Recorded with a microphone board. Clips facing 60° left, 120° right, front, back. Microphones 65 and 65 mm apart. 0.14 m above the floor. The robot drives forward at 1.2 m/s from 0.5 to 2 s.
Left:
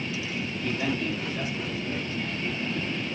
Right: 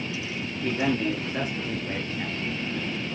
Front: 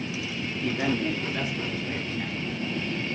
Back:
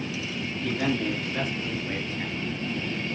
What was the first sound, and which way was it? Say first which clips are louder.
A man speaking: right 4 dB, even; 65° right.